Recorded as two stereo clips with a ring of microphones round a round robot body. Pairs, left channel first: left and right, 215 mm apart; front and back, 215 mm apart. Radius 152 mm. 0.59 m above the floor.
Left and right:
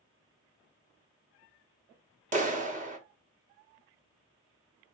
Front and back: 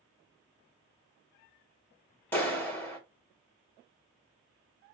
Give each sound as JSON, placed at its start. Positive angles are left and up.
{"t": 2.3, "sound": "a clap", "azimuth_deg": -75, "distance_m": 0.9}